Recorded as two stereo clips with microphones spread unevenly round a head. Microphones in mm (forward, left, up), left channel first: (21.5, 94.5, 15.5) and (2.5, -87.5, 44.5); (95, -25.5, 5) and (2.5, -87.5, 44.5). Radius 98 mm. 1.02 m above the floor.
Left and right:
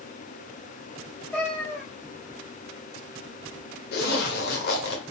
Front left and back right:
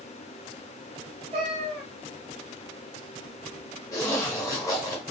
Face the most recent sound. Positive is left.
turn(degrees=120)